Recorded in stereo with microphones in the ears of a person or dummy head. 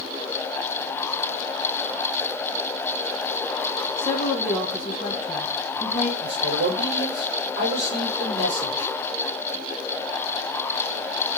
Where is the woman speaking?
25° left (ahead or behind), 2 m.